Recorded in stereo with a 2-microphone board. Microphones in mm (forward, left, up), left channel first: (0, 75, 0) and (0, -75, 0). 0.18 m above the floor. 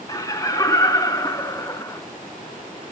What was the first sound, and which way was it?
Laughter, 25° left (ahead or behind).